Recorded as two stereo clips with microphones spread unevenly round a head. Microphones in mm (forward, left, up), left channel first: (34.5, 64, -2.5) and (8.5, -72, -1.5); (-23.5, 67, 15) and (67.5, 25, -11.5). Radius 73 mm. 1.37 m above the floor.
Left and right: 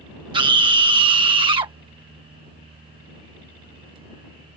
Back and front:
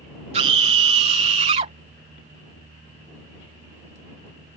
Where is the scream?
45° right.